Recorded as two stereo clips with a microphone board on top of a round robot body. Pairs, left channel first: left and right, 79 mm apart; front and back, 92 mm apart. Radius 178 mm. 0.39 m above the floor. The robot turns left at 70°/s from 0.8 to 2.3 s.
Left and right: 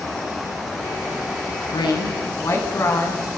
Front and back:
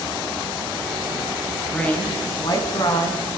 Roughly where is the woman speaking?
Left.